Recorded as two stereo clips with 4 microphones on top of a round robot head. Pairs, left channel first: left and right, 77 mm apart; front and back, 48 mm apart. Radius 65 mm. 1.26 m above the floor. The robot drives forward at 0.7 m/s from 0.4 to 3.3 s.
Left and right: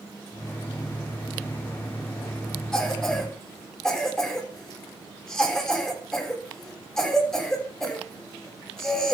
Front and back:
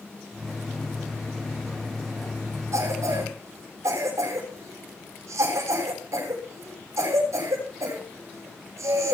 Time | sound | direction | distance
2.7 | a cough | 170° left | 8 m